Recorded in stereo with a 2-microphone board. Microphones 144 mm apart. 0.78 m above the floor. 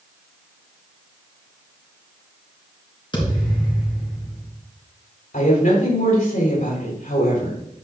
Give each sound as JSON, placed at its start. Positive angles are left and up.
{"t": 3.1, "sound": "a thud", "side_deg": 30, "distance_m": 3.5}
{"t": 5.3, "sound": "a woman speaking", "side_deg": 65, "distance_m": 4.0}